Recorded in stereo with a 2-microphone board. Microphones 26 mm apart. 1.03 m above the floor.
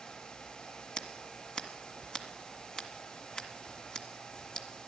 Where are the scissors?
30° left (ahead or behind), 1.8 m.